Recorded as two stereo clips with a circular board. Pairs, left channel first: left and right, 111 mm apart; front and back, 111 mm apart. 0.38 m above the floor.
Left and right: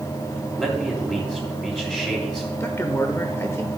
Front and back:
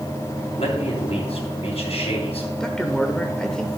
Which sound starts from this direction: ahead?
A man speaking, at 0.6 s.